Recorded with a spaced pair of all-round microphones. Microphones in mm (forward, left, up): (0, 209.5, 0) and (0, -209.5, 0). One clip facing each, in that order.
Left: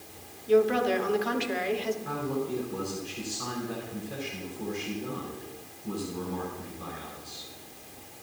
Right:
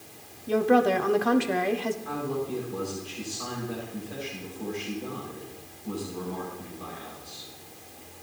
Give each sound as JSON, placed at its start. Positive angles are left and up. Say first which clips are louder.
{"t": 0.5, "sound": "a woman speaking", "louder": "right 1 dB", "side_deg": -65, "distance_m": 0.9}
{"t": 2.0, "sound": "a man speaking", "louder": "even", "side_deg": 40, "distance_m": 7.0}